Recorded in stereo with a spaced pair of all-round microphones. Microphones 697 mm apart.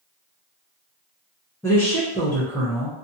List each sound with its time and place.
1.6 s a woman speaking: 5° left (ahead or behind), 0.5 m